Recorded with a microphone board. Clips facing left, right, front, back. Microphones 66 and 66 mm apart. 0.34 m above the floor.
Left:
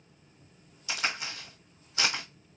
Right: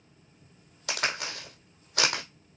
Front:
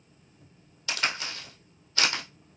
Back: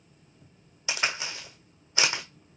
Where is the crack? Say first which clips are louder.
Right 2 dB, even; 105° right, 2 m.